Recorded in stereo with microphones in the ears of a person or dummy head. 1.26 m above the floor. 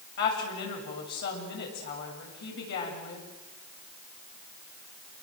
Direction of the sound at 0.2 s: 55° left (ahead or behind).